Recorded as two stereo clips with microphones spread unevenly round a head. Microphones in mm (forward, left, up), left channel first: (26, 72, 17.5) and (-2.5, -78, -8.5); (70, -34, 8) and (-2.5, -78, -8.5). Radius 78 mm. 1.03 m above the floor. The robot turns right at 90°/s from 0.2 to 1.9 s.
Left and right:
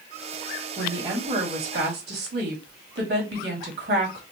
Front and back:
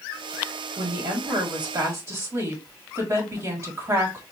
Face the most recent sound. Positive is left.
turn(degrees=-95)